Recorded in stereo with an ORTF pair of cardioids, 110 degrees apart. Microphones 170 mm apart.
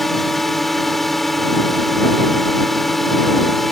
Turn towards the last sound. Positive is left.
turn(degrees=0)